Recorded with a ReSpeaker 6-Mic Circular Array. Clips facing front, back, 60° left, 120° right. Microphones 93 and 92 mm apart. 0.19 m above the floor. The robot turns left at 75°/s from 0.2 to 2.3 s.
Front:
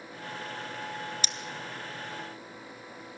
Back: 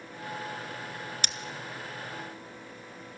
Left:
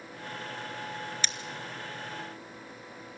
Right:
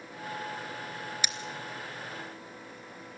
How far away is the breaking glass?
About 0.8 m.